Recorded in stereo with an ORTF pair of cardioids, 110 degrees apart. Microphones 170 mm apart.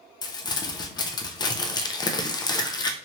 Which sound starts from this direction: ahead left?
Crumpling, at 0.2 s.